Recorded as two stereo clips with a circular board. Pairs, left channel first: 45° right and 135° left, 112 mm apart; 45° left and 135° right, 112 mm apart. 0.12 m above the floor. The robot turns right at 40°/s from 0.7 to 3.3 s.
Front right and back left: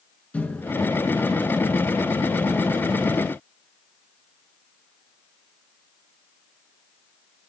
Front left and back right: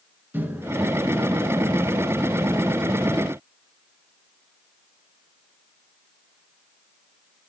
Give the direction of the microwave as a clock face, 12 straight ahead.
3 o'clock.